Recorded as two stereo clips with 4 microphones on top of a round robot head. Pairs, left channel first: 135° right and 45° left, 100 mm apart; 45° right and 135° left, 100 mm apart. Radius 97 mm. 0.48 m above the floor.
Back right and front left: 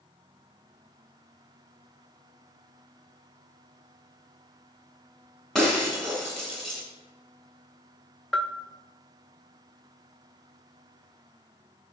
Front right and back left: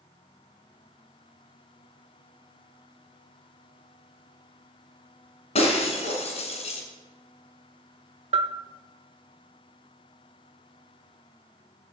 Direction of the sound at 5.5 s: 50° right.